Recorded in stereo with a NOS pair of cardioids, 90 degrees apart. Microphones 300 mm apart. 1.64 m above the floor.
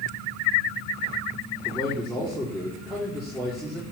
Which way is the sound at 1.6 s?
Straight ahead.